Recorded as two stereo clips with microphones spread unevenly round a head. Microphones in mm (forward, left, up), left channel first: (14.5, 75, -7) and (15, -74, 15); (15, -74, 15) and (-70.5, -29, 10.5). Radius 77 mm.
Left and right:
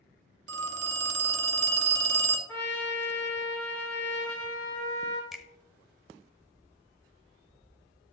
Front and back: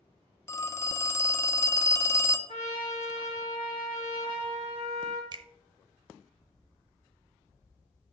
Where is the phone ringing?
90° right, 0.8 m.